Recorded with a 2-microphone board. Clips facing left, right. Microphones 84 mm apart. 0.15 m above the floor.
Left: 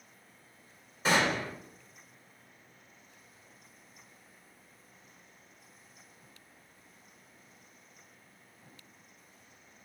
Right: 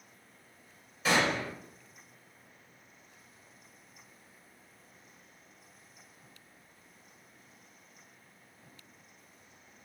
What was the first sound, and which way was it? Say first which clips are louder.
A gunshot: even; 35° left (ahead or behind).